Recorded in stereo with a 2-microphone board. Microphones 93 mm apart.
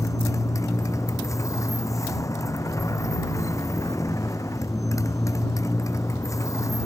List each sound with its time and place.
0.0 s a motorcycle: 35° left (ahead or behind)